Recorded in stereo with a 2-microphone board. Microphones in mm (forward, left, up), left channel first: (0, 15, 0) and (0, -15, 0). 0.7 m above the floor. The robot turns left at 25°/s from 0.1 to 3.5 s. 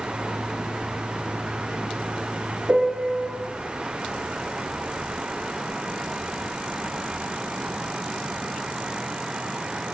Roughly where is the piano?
Right.